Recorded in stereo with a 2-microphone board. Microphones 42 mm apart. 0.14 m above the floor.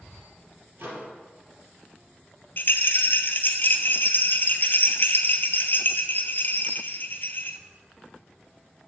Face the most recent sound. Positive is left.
turn(degrees=55)  # may be behind; listen again after turning